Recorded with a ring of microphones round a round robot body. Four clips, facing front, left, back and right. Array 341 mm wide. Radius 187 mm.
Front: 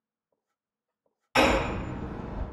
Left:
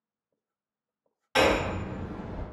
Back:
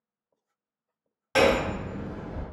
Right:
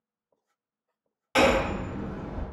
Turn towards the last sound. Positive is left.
turn(degrees=-160)